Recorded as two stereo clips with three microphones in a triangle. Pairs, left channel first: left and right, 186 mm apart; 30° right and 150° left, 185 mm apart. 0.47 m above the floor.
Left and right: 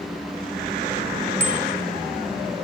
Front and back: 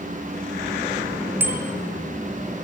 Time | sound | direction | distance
1.4 | a bicycle bell | 75° left | 3.5 m